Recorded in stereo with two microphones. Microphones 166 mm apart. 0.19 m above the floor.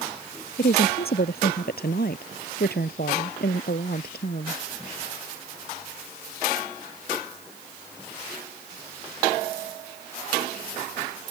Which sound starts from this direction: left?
A woman speaking, at 0.6 s.